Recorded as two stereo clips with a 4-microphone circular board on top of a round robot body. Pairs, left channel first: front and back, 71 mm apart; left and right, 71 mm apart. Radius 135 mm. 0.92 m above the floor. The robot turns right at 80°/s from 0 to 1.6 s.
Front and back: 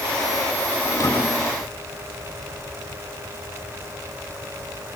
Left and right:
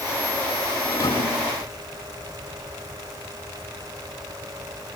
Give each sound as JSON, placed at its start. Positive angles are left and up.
{"t": 0.8, "sound": "a thud", "azimuth_deg": 35, "distance_m": 5.0}